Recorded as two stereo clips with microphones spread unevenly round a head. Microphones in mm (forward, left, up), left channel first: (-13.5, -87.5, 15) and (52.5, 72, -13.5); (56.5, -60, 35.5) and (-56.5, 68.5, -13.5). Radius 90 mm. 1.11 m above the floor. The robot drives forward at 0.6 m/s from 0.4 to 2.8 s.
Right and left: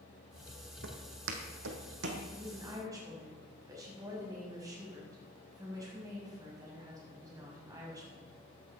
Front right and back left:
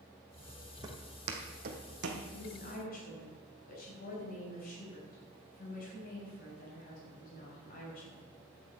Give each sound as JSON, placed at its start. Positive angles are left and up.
{"t": 0.8, "sound": "footsteps", "azimuth_deg": 55, "distance_m": 2.5}
{"t": 2.3, "sound": "a woman speaking", "azimuth_deg": -5, "distance_m": 7.0}